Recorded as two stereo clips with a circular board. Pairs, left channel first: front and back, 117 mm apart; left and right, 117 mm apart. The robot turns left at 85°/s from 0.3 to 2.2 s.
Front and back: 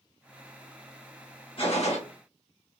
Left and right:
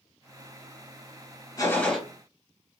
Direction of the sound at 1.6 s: 35° left.